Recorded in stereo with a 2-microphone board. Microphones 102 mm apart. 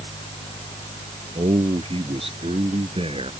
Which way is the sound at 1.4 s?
70° right (ahead or behind).